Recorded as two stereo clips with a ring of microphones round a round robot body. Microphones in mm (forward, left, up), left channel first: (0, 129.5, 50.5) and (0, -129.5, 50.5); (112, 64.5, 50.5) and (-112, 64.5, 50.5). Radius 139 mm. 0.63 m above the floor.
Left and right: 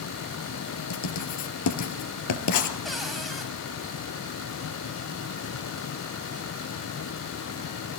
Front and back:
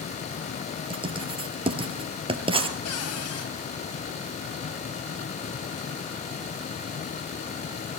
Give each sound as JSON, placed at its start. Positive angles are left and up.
{"t": 0.9, "sound": "writing", "azimuth_deg": 115, "distance_m": 3.0}
{"t": 2.9, "sound": "a cupboard door", "azimuth_deg": 0, "distance_m": 4.5}